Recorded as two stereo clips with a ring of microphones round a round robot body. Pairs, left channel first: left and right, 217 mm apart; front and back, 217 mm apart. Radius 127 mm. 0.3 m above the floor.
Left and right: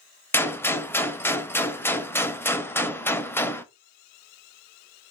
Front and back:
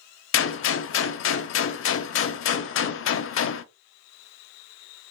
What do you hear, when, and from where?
0.3 s a gunshot: 10° left, 0.5 m